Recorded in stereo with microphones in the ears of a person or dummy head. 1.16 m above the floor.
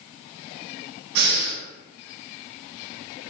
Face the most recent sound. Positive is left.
turn(degrees=-55)  # may be behind; listen again after turning